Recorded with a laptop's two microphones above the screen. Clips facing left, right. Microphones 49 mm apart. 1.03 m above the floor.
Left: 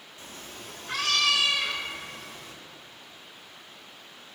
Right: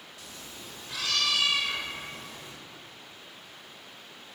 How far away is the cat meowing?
About 0.6 m.